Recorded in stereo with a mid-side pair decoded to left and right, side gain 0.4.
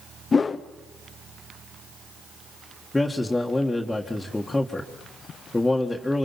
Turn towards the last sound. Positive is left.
turn(degrees=15)